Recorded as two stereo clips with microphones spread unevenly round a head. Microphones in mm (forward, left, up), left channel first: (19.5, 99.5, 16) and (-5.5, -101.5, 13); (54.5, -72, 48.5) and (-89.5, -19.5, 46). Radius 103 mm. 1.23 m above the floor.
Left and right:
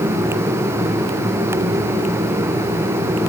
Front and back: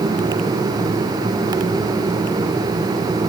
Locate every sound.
Only background noise.